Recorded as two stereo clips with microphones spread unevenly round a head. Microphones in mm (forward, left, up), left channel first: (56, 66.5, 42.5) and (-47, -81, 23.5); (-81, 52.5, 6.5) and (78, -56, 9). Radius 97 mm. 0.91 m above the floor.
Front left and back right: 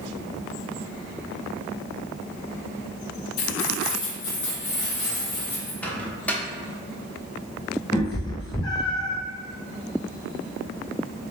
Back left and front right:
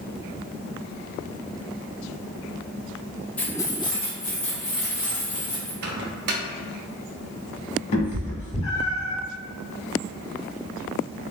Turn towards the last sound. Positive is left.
turn(degrees=105)